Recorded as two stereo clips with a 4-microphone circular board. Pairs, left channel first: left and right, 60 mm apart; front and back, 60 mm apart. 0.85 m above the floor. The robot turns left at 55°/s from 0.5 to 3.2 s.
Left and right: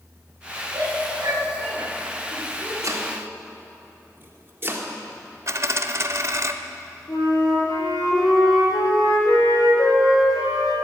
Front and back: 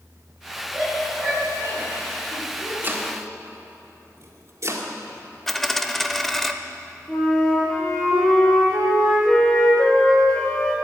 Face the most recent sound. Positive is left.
turn(degrees=80)